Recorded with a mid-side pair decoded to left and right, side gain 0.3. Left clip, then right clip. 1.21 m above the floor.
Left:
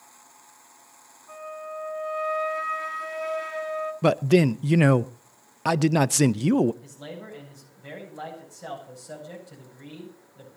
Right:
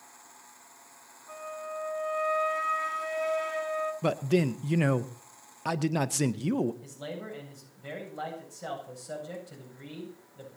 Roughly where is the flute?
Ahead.